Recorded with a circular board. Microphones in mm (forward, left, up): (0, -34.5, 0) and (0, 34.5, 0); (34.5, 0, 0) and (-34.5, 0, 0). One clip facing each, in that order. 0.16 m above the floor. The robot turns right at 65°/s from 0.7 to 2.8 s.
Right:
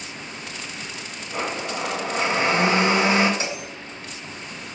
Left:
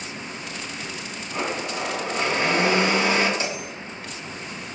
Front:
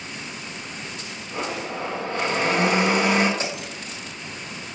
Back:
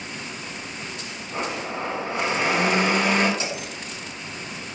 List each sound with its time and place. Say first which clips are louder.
1.3 s a blender: even, even; straight behind, 1.1 m; by 3.3 s 85° right, 1.1 m
3.4 s a bell: left 1 dB, even; 45° right, 1.9 m